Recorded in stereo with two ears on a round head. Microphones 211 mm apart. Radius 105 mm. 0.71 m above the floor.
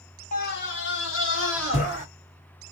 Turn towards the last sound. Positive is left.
turn(degrees=55)  # may be behind; listen again after turning